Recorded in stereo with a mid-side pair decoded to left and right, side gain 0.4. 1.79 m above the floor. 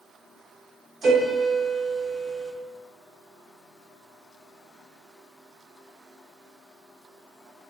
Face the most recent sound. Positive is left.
turn(degrees=-65)